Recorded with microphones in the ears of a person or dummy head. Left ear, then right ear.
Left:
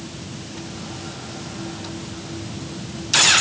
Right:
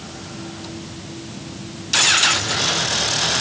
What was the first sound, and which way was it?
Only background noise.